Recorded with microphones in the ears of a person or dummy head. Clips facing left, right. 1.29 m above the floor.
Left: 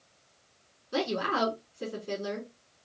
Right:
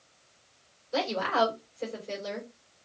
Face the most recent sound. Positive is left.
turn(degrees=60)  # may be behind; listen again after turning